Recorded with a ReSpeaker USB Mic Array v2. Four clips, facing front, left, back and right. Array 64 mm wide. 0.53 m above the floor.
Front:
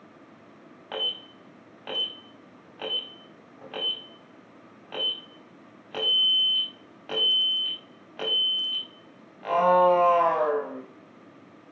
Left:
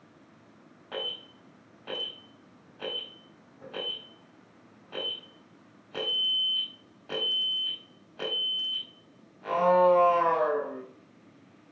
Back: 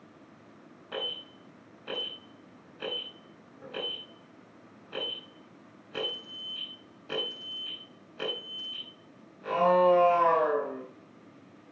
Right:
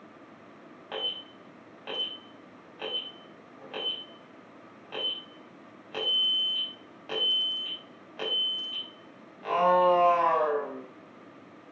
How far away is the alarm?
About 4 m.